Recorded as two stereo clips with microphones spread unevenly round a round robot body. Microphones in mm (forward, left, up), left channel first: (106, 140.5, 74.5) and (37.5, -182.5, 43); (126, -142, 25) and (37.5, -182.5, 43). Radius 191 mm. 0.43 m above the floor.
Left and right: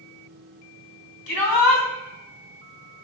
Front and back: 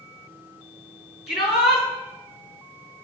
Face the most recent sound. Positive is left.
turn(degrees=60)